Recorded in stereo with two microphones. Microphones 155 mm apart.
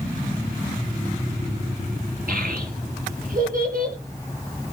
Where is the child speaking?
65° right (ahead or behind), 5 m.